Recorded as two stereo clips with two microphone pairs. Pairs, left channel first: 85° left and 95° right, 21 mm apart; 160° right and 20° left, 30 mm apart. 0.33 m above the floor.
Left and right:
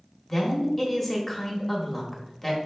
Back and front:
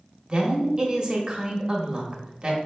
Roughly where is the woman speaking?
Ahead.